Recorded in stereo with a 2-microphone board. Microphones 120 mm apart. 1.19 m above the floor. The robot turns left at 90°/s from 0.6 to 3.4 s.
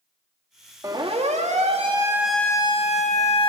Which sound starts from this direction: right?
A siren, at 0.8 s.